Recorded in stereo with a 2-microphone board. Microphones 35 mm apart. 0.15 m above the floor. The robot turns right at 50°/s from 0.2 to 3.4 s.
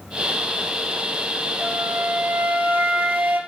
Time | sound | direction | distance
1.6 | a flute | 165° right | 2.5 m